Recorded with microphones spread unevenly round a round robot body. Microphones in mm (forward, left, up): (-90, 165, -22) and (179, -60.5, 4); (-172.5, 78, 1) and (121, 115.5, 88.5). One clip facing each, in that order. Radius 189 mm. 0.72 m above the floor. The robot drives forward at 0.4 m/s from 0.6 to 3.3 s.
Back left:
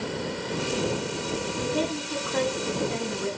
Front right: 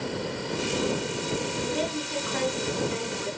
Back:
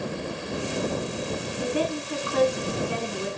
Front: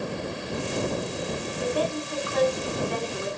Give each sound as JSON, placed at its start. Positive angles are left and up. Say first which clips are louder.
{"t": 1.6, "sound": "a woman speaking", "louder": "back left 2 dB, even", "azimuth_deg": 130, "distance_m": 7.5}